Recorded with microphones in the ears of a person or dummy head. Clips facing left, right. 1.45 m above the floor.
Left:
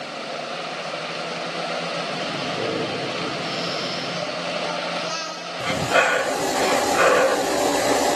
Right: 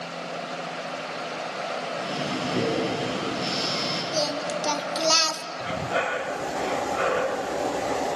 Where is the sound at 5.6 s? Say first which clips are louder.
Left 7 dB; 65° left (ahead or behind), 0.6 m.